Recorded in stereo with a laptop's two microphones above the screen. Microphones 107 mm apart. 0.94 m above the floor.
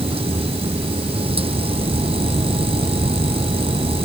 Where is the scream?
I don't hear a scream.